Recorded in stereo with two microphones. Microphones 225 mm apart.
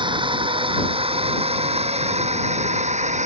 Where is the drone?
20° right (ahead or behind); by 3.3 s 30° right (ahead or behind).